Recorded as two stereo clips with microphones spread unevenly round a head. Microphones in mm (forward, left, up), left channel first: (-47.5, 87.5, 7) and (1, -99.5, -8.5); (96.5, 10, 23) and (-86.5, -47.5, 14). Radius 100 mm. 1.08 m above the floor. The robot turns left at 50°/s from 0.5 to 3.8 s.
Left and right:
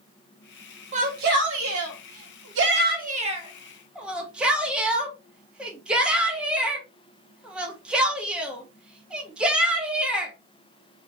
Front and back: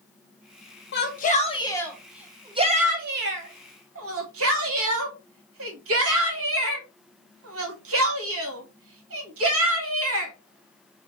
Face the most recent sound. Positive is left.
turn(degrees=-160)